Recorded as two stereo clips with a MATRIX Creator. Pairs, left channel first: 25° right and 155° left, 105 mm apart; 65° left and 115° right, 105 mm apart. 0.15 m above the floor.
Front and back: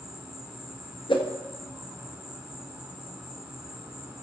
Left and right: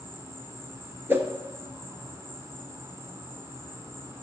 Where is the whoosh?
45° right, 1.4 m.